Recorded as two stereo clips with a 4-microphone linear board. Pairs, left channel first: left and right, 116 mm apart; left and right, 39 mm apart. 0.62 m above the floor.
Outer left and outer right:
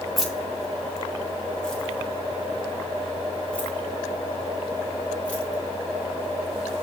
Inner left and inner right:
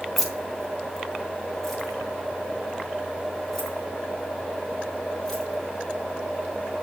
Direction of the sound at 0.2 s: Centre (ahead or behind).